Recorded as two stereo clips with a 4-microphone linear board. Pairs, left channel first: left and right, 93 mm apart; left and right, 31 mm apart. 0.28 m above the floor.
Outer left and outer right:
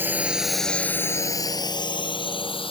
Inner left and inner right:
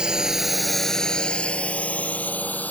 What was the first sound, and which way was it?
A drone, 20° right (ahead or behind).